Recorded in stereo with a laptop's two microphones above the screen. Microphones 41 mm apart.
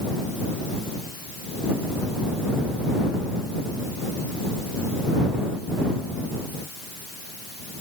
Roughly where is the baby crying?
I don't hear a baby crying.